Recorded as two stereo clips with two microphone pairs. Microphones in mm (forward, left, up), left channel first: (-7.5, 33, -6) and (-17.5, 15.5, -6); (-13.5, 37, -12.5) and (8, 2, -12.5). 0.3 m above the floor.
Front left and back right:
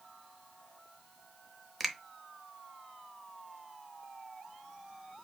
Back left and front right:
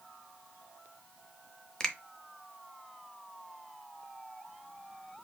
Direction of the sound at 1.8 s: 150° left.